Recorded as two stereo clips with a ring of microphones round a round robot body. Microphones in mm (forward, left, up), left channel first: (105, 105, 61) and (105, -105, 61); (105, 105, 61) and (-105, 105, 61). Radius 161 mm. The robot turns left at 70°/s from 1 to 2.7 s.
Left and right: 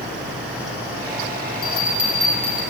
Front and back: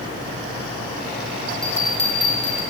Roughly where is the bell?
Left.